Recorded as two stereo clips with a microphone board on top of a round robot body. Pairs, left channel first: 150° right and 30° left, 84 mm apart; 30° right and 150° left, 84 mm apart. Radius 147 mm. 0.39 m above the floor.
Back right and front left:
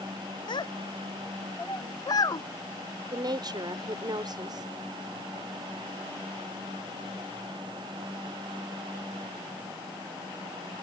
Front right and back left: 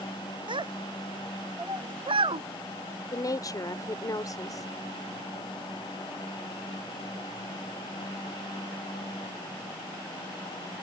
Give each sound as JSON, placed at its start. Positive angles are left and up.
{"t": 0.5, "sound": "a child speaking", "azimuth_deg": 175}
{"t": 3.1, "sound": "a woman speaking", "azimuth_deg": 10}